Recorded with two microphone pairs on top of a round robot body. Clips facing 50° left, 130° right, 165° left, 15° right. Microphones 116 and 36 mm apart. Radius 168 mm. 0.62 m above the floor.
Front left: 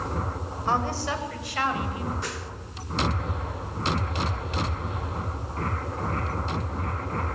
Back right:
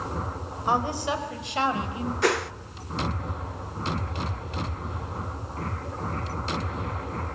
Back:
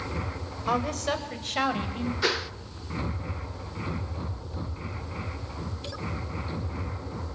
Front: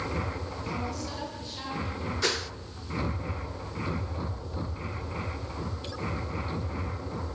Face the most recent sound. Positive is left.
turn(degrees=-120)